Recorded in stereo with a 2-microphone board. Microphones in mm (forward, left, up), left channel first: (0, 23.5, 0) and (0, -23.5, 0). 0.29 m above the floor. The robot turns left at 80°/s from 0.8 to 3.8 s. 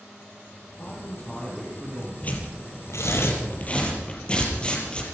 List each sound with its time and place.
0.8 s a man speaking: 70° left, 10 m; by 2.1 s 35° right, 10 m
2.2 s tearing paper: 30° left (ahead or behind), 6 m; by 5.0 s 25° left (ahead or behind), 6 m